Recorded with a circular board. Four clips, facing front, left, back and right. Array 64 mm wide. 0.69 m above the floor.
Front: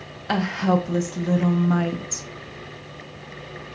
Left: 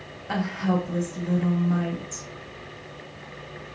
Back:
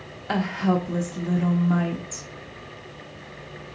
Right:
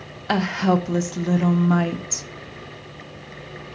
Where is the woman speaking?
70° right, 0.6 m.